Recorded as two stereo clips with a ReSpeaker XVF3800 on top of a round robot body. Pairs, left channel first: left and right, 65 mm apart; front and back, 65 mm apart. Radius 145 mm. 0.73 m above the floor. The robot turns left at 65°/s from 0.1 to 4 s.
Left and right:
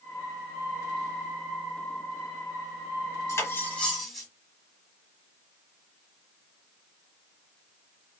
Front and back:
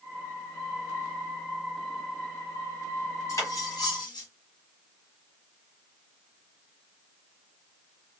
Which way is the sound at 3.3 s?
45° left.